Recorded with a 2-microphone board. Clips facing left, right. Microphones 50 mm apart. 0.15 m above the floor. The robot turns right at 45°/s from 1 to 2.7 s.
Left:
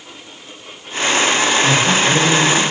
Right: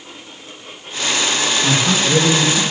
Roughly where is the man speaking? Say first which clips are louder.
Left 3 dB; behind.